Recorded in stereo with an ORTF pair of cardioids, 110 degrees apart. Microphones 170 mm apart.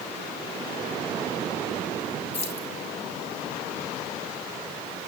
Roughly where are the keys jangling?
Ahead left.